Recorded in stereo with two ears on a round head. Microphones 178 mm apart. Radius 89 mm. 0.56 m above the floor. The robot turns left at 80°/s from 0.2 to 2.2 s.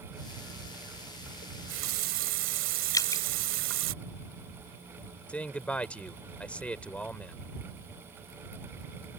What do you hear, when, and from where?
1.4 s a running tap: 45° right; by 3.9 s 110° right
2.9 s dripping: 20° left (ahead or behind)
5.3 s a man speaking: 5° left (ahead or behind)